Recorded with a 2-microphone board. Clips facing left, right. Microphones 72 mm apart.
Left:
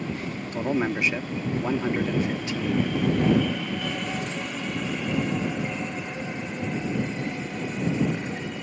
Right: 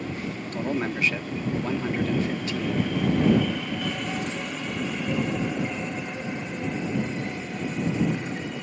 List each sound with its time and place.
0.5 s a man speaking: 15° left (ahead or behind)